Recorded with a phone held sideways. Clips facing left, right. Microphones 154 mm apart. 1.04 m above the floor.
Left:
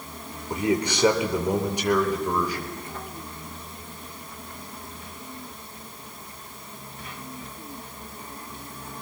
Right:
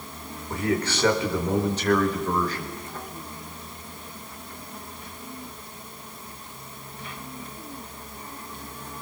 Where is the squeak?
No squeak in this recording.